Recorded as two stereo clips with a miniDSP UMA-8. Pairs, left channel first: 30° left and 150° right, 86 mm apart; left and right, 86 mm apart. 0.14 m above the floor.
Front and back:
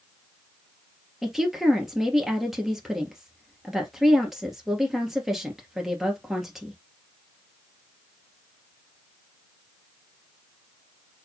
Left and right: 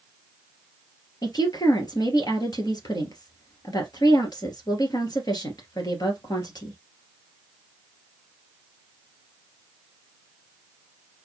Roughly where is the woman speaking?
Behind left.